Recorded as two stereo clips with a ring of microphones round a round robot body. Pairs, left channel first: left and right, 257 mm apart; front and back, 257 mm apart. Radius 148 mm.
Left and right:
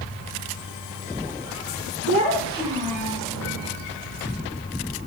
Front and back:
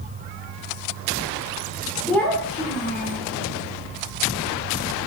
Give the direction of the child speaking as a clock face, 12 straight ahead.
3 o'clock.